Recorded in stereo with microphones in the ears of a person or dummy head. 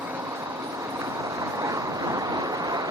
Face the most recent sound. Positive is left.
turn(degrees=-20)  # may be behind; listen again after turning